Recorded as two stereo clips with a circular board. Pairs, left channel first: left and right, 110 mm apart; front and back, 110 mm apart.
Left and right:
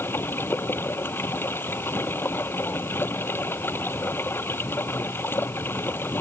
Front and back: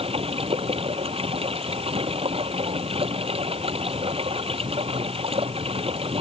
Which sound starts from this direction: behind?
Running water, at 0.0 s.